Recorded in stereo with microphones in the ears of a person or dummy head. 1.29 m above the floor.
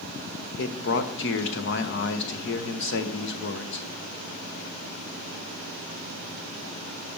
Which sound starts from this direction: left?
A man speaking, at 0.6 s.